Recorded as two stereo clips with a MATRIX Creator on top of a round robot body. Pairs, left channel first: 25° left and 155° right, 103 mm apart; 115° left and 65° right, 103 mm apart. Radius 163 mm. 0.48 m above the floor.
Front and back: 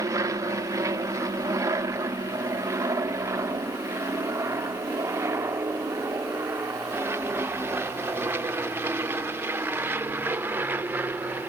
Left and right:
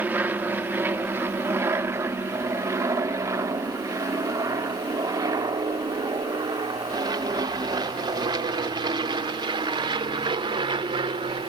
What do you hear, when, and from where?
0.0 s an aircraft: 130° right; by 11.5 s 90° right